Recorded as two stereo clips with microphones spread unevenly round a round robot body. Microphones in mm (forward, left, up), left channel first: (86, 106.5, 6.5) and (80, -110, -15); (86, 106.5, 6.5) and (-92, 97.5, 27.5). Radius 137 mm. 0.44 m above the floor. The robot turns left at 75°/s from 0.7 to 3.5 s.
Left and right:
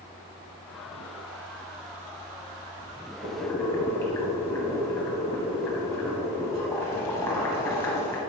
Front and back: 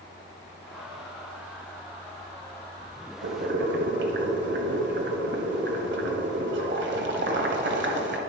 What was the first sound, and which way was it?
Boiling, 170° right.